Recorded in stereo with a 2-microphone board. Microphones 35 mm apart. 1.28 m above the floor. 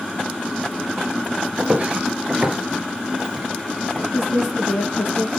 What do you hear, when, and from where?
1.6 s footsteps: 35° right (ahead or behind), 1.4 m; by 4.0 s 5° left (ahead or behind), 2 m
4.1 s a woman speaking: 70° left (ahead or behind), 1.7 m